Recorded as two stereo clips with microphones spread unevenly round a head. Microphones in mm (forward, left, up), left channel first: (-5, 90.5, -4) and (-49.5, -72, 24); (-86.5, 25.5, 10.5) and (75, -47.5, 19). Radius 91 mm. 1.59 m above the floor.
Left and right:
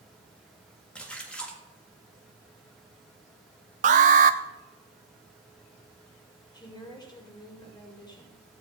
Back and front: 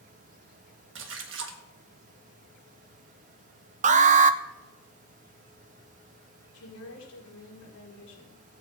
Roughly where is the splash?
Ahead.